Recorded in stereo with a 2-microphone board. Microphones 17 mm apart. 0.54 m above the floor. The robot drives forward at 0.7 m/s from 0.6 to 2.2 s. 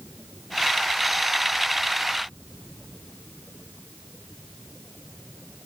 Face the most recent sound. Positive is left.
No sound to turn to.